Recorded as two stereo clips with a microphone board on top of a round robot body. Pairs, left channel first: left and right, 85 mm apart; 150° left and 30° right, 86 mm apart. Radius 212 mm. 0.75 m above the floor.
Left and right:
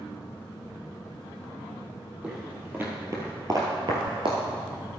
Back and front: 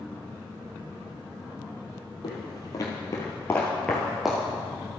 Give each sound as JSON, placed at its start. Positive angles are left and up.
{"t": 2.2, "sound": "footsteps", "azimuth_deg": -165, "distance_m": 1.5}